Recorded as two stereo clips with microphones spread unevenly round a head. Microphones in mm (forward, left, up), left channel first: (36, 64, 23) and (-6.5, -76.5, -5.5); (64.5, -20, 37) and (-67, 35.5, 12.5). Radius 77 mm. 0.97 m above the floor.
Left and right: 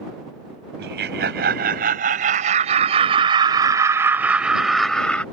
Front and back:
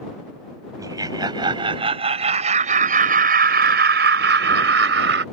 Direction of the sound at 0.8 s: 135° right.